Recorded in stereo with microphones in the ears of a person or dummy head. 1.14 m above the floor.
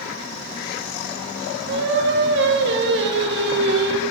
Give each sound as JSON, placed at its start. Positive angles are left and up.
{"t": 1.7, "sound": "singing", "side_deg": -55, "distance_m": 1.1}